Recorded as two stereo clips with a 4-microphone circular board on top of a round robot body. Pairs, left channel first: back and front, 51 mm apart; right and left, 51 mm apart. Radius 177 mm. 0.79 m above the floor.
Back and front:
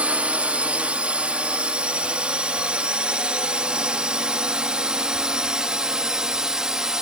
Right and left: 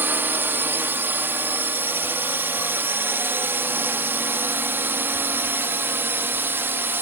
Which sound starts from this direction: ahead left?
A drone, at 0.0 s.